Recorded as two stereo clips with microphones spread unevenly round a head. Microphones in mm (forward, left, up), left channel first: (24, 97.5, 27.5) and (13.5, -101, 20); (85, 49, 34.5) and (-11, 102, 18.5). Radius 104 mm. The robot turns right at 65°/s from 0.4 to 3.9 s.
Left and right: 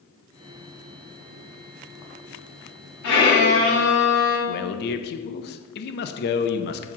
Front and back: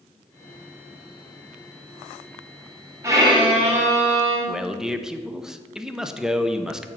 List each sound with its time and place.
3.0 s a violin: 90° left, 3.5 m; by 4.4 s 145° left, 3.5 m
4.5 s a man speaking: 60° left, 0.7 m